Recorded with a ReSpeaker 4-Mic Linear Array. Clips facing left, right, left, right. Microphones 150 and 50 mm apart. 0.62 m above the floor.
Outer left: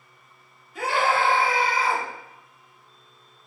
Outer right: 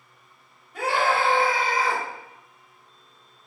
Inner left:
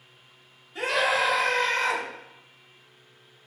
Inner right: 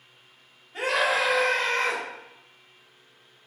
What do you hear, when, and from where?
0.7 s a scream: 60° right (ahead or behind), 1.9 m; by 2.0 s 40° right (ahead or behind), 1.1 m